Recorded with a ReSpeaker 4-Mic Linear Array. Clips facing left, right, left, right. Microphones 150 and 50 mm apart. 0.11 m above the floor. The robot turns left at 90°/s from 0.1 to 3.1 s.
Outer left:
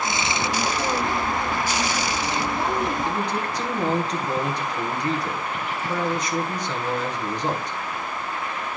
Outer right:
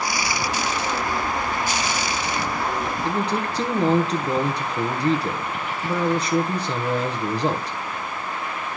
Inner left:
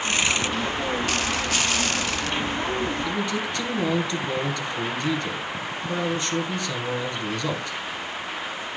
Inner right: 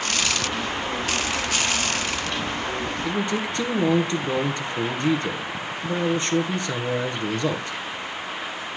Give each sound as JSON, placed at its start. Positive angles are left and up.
{"t": 3.0, "sound": "a man speaking", "side_deg": -30, "distance_m": 1.4}